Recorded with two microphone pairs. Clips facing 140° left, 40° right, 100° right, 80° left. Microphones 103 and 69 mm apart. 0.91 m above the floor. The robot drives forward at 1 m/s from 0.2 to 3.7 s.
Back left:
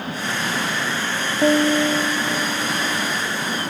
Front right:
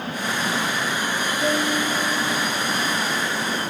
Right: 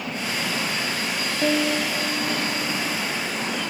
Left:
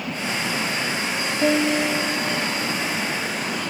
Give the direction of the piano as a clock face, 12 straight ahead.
6 o'clock.